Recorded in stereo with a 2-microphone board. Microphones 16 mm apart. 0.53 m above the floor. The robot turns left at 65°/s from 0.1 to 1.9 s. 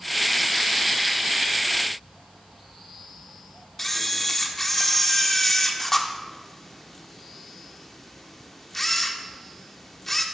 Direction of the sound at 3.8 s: 25° left (ahead or behind).